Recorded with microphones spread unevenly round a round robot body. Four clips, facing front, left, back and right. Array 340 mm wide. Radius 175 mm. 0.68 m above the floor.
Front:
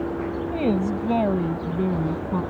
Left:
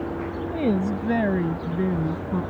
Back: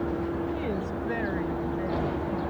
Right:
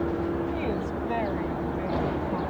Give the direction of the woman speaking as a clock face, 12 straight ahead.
10 o'clock.